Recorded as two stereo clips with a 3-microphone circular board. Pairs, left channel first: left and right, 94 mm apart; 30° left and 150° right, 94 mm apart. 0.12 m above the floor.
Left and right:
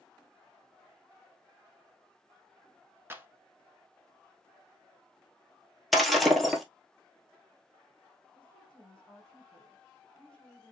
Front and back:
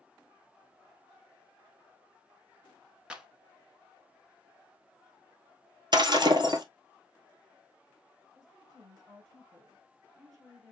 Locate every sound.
3.1 s a clap: 85° right, 0.9 m
5.9 s breaking glass: straight behind, 1.2 m
8.3 s a woman speaking: 165° left, 5 m